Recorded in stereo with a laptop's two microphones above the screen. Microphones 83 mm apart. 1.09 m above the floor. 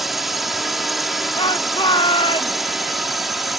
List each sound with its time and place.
0.0 s a drone: centre (ahead or behind)
1.4 s a shout: 75° left (ahead or behind)